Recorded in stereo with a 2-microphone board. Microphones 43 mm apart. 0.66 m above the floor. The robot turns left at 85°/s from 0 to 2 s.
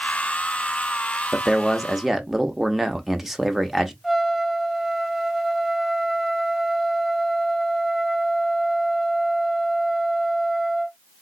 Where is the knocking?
No knocking in this recording.